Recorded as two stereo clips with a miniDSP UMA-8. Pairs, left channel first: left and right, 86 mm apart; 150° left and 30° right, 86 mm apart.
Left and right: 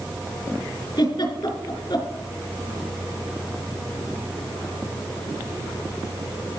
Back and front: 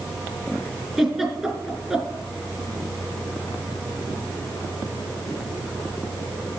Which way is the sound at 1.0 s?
55° left.